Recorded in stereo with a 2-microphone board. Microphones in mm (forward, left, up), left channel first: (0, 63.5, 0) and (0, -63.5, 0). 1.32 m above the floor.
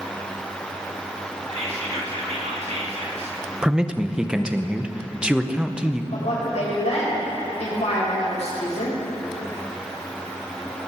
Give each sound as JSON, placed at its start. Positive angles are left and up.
{"t": 1.5, "sound": "whispering", "side_deg": -60, "distance_m": 2.0}
{"t": 3.6, "sound": "a man speaking", "side_deg": -10, "distance_m": 0.7}
{"t": 6.1, "sound": "a woman speaking", "side_deg": 70, "distance_m": 5.0}